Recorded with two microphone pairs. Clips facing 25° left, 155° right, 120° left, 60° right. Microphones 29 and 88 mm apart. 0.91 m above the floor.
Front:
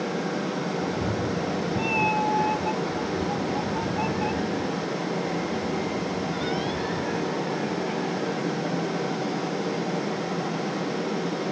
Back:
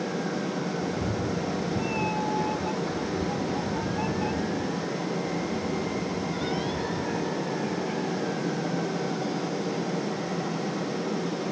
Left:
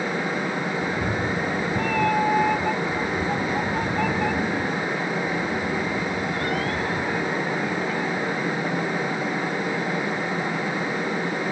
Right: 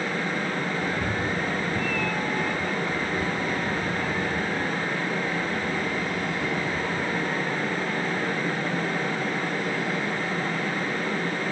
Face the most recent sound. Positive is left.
turn(degrees=105)